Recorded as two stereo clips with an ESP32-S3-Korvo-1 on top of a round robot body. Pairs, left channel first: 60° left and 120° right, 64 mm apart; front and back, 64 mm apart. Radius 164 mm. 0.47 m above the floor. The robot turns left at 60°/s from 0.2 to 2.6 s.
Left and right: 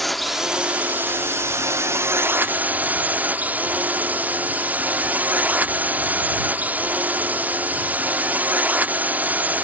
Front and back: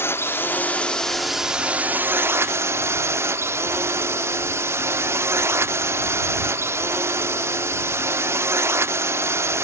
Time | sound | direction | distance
0.0 | a drone | 30° right | ?